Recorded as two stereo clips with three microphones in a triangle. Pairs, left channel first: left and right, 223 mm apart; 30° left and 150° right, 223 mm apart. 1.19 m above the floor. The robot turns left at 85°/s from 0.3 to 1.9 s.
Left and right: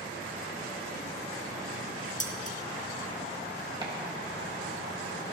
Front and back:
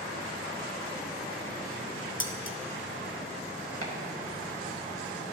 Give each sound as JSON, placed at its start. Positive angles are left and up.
{"t": 2.2, "sound": "dishes clattering", "azimuth_deg": 40, "distance_m": 0.8}
{"t": 3.8, "sound": "chopping", "azimuth_deg": -160, "distance_m": 1.8}